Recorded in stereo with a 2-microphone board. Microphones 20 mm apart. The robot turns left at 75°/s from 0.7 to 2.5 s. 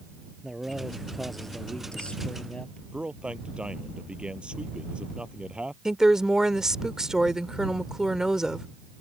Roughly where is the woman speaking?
Right.